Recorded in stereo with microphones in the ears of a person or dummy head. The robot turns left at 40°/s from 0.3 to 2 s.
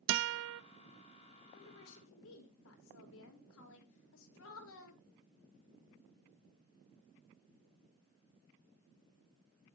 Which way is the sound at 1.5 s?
80° left.